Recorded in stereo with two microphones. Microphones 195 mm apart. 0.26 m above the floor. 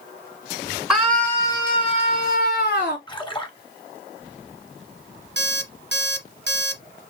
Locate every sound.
0.9 s a scream: 5° right (ahead or behind), 1.9 m; by 3.0 s 65° left (ahead or behind), 2.5 m
3.1 s a splash: 25° left (ahead or behind), 1.3 m
5.4 s an alarm clock: 60° right (ahead or behind), 1.0 m